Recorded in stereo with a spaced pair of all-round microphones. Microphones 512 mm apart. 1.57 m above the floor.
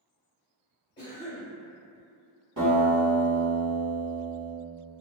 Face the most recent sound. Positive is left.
turn(degrees=-35)  # may be behind; listen again after turning